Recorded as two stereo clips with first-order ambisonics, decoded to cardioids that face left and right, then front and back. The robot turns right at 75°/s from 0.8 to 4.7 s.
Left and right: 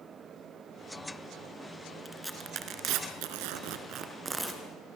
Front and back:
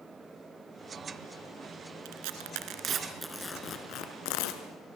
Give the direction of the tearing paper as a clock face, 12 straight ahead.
6 o'clock.